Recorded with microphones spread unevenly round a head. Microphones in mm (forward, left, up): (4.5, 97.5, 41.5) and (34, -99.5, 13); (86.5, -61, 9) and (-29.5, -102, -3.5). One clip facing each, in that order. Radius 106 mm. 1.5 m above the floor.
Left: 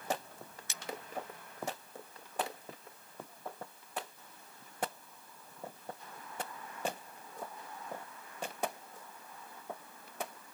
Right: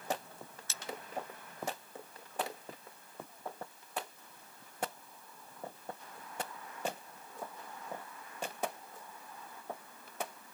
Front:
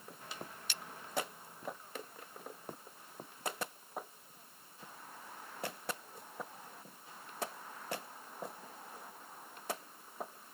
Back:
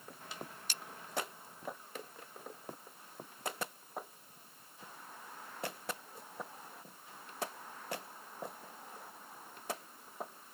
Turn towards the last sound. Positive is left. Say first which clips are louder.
# even, even
turn(degrees=155)